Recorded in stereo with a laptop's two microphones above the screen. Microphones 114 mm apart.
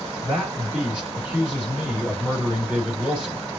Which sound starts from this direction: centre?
A man speaking, at 0.2 s.